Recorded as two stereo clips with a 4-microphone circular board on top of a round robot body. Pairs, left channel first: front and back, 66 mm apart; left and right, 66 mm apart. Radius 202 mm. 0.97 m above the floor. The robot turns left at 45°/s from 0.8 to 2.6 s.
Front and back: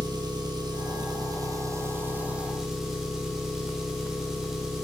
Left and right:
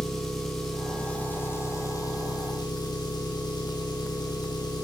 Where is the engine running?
175° left, 4 m; by 4.8 s 95° left, 4 m.